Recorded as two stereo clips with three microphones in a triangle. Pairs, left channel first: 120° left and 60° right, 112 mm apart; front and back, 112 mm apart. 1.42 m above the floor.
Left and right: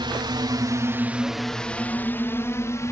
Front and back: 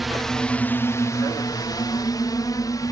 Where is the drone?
90° right; by 2.9 s 55° left.